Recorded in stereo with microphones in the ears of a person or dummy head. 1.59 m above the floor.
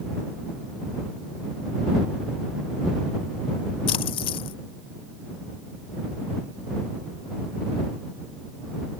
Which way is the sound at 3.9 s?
30° left (ahead or behind).